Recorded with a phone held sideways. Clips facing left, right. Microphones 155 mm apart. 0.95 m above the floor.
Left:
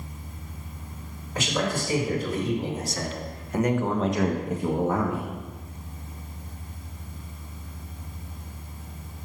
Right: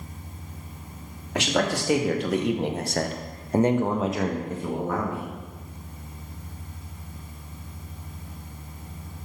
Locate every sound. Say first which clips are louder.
1.4 s a man speaking: right 3 dB; 75° right (ahead or behind), 1.6 m; by 5.3 s 30° left (ahead or behind), 1.2 m